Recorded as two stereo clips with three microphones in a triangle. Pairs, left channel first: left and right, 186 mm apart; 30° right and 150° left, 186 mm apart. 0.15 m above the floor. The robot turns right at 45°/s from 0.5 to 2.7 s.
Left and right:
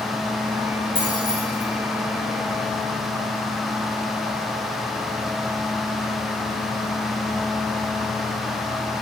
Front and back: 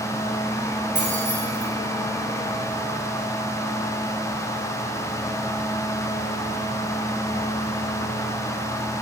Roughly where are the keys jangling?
Behind left.